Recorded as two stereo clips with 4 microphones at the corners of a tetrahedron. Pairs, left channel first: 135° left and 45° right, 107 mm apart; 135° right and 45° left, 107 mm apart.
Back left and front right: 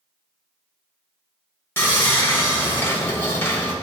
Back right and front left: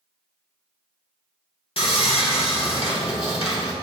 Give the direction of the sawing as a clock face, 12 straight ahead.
5 o'clock.